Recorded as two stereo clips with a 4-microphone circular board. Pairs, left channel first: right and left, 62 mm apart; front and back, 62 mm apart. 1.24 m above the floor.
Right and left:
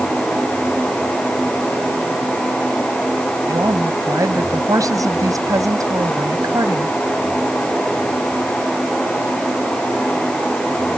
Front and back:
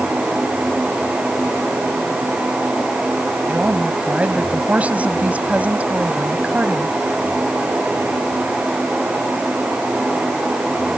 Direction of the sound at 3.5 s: 115° left.